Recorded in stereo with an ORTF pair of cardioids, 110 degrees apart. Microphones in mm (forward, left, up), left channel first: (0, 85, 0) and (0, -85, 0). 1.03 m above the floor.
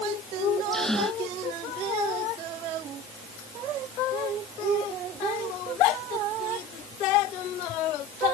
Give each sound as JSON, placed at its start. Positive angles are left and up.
{"t": 0.7, "sound": "a gasp", "azimuth_deg": 5}